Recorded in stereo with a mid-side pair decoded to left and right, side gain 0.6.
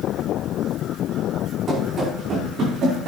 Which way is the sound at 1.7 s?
40° right.